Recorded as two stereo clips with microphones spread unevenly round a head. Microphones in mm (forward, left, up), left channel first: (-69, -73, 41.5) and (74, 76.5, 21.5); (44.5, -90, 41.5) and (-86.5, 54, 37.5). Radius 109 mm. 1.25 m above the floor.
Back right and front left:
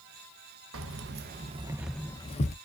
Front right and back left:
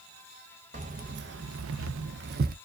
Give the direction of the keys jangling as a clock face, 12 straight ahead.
10 o'clock.